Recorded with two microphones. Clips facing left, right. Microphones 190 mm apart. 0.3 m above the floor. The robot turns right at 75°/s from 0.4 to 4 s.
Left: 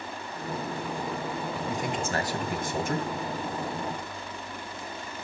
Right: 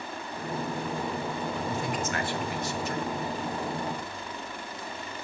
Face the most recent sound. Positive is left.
turn(degrees=-175)